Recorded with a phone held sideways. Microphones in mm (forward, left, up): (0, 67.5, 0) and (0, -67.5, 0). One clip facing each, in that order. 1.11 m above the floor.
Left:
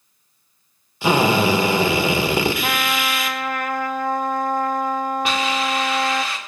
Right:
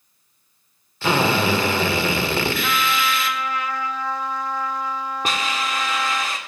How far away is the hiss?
About 1.7 m.